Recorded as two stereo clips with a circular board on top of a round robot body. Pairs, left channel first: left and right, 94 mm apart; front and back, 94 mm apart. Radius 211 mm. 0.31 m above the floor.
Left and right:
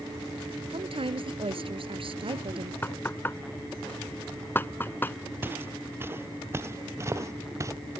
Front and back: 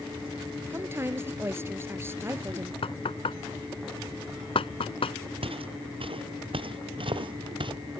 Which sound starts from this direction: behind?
Footsteps, at 5.4 s.